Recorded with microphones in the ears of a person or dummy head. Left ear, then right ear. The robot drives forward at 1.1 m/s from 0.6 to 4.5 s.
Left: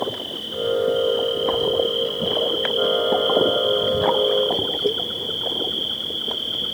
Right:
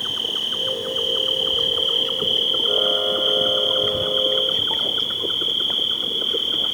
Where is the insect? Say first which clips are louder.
Right 4 dB; 40° right (ahead or behind); by 6.8 s 30° right (ahead or behind).